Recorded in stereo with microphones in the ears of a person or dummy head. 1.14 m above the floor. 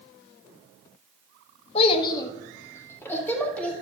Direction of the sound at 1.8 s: 40° left (ahead or behind).